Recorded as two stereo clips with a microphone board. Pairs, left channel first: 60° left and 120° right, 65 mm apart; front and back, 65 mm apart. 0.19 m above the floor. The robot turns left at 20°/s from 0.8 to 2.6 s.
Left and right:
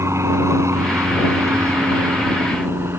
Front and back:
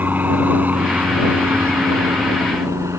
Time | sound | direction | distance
0.0 | an aircraft | 130° right | ?